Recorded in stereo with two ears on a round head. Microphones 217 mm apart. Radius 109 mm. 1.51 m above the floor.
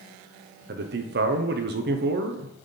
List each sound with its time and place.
0.7 s a man speaking: 45° right (ahead or behind), 0.5 m